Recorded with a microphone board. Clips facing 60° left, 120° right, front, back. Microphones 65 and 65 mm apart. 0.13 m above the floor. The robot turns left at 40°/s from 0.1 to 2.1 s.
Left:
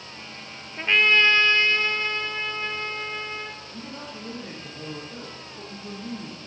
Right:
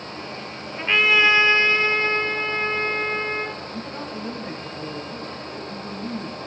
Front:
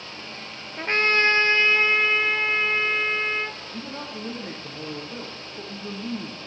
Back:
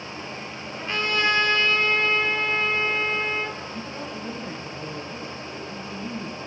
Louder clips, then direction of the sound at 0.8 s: Right 1 dB, front 4 dB; 25° right.